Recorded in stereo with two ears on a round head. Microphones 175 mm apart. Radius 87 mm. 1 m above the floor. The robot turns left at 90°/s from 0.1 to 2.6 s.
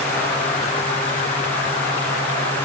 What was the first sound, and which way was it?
Only background noise.